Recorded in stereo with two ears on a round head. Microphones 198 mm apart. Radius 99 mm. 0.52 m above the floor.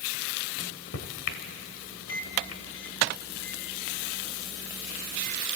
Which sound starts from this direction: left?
A microwave, at 0.6 s.